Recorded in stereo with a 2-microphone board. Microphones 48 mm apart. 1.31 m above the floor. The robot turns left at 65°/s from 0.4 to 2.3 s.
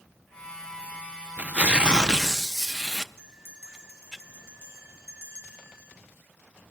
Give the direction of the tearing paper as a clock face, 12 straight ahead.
4 o'clock.